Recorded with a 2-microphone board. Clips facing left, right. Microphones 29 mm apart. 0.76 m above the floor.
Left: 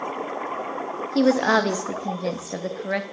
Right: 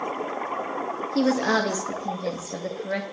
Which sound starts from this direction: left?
A woman speaking, at 1.1 s.